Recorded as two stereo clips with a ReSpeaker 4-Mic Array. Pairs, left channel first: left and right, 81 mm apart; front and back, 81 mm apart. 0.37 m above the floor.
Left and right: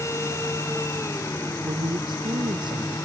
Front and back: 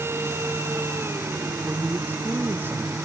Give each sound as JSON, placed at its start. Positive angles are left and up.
{"t": 1.6, "sound": "a man speaking", "azimuth_deg": -115}